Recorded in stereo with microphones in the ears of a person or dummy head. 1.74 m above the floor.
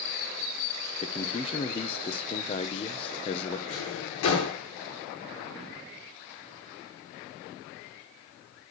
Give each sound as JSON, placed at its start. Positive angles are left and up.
{"t": 1.0, "sound": "a man speaking", "side_deg": 35, "distance_m": 1.5}
{"t": 3.7, "sound": "a drawer", "side_deg": 65, "distance_m": 8.5}